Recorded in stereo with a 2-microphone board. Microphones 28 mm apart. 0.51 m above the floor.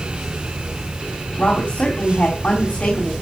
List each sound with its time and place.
1.4 s a woman speaking: 50° left (ahead or behind), 3.5 m